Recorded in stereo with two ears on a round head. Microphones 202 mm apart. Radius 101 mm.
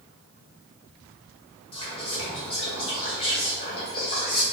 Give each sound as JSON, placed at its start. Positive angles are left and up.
{"t": 1.7, "sound": "whispering", "side_deg": 25, "distance_m": 1.2}